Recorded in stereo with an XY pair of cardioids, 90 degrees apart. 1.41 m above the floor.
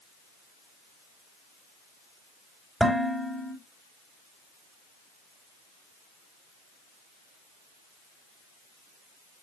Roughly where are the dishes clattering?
Ahead.